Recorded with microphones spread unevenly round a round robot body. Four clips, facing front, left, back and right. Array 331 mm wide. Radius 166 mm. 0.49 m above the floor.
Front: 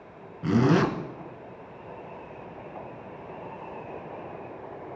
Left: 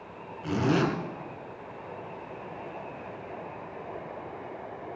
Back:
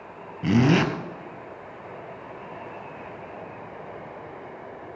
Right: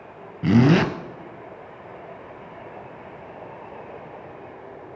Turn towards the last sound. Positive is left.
turn(degrees=-110)